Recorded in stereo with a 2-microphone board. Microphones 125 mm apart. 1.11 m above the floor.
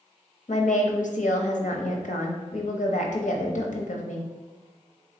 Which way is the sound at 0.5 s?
80° left.